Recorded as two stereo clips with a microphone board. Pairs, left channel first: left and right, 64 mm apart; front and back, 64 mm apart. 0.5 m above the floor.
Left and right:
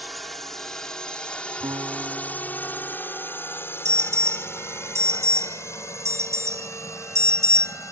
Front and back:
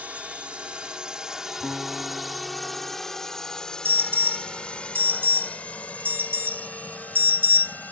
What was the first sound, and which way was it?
A drone, straight behind.